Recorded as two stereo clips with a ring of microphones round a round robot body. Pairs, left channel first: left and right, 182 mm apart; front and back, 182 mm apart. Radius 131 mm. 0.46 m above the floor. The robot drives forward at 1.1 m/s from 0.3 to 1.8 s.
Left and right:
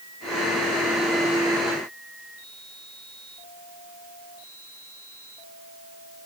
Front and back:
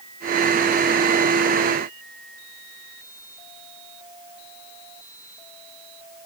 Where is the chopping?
No chopping in this recording.